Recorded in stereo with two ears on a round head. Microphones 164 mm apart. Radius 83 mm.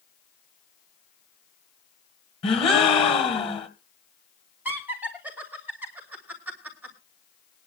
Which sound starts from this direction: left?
A gasp, at 2.4 s.